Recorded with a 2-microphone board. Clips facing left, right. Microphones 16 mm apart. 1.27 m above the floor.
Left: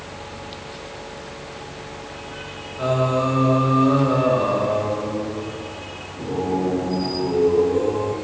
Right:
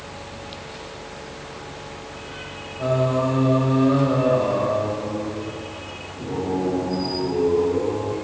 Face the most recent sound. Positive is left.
turn(degrees=60)  # may be behind; listen again after turning